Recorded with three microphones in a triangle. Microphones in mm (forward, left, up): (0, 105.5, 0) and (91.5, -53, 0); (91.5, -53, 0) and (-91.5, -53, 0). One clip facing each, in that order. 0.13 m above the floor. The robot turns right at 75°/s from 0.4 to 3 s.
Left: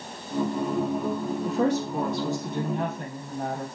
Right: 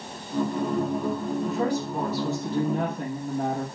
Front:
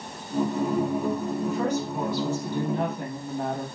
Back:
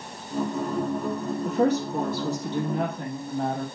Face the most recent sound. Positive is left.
turn(degrees=-80)